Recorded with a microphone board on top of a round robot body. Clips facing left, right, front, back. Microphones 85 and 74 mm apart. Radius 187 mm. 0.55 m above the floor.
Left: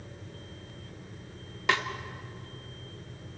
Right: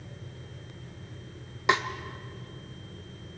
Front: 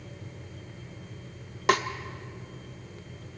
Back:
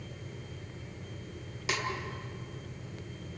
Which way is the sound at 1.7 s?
20° right.